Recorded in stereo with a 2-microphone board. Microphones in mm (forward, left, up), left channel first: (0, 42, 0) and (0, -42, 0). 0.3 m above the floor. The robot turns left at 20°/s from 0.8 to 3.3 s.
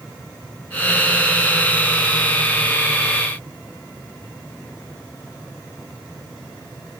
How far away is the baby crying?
No baby crying in this recording.